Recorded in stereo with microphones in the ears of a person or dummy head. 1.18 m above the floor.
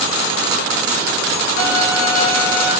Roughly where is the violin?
Left.